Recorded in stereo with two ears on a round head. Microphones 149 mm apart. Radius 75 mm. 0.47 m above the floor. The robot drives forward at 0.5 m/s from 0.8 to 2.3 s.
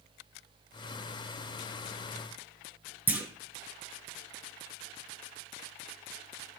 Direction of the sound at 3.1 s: 10° right (ahead or behind).